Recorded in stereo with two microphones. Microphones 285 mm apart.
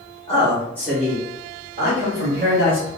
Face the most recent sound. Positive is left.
turn(degrees=-45)  # may be behind; listen again after turning